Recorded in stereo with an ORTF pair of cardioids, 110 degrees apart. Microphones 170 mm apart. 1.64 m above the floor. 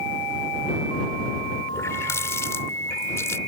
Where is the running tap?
15° left.